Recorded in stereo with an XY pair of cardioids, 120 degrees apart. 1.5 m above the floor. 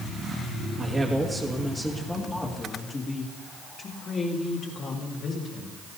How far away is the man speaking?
About 2 m.